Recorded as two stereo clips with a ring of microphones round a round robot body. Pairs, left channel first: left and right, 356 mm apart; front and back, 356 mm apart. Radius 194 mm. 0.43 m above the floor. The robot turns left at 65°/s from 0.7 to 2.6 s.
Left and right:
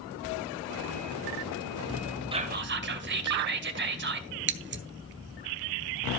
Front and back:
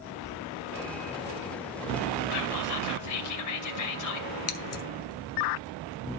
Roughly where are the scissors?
Ahead right.